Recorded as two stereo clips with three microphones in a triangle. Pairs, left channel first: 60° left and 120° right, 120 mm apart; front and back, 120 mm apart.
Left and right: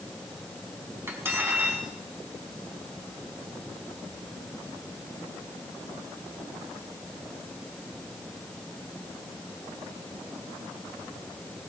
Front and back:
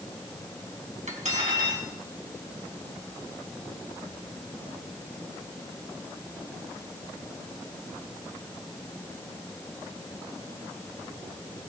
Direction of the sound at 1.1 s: 170° left.